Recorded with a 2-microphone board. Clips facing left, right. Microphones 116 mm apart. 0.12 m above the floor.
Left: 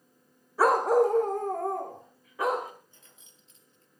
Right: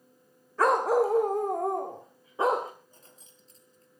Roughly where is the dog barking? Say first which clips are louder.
Left 1 dB; centre.